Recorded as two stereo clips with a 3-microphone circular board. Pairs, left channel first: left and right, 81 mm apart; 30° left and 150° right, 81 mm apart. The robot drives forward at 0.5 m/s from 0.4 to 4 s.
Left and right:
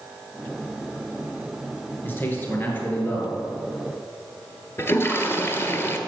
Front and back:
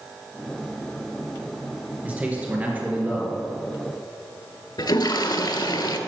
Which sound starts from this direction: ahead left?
A toilet flushing, at 4.8 s.